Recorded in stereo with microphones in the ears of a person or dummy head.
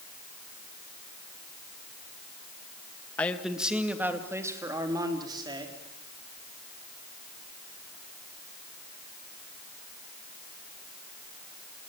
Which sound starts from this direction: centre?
A man speaking, at 3.2 s.